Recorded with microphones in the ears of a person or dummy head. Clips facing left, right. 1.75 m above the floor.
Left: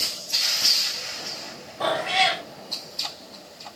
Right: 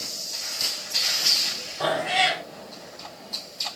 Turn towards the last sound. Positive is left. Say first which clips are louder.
# even
turn(degrees=-25)  # may be behind; listen again after turning